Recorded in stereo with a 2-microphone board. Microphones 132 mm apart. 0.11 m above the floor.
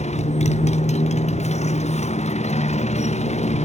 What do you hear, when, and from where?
0.0 s a motorcycle: 60° left (ahead or behind)